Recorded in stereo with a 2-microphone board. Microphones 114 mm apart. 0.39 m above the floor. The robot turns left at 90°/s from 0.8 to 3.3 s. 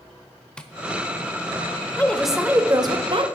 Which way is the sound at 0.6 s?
10° left (ahead or behind).